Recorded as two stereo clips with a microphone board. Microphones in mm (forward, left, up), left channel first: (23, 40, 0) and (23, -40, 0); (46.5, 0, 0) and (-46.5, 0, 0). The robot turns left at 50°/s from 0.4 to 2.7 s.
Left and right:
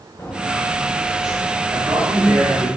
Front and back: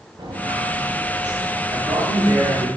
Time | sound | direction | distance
0.2 | footsteps | 150° left | 3.5 m
1.7 | a man speaking | 145° right | 2.0 m